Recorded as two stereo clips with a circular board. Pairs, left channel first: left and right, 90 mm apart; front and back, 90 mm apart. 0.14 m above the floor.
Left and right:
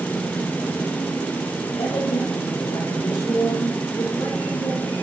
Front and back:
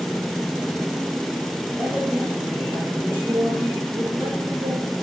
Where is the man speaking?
95° left, 4 m; by 4.8 s 165° left, 2.5 m.